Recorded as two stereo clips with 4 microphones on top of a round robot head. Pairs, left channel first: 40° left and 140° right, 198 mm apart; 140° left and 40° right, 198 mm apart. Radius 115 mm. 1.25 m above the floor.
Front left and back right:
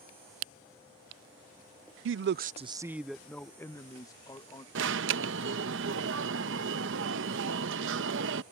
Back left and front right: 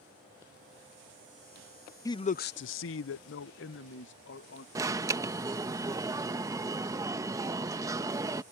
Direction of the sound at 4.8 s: 115° right.